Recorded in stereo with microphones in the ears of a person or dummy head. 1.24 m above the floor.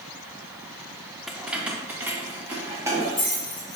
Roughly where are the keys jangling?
Centre.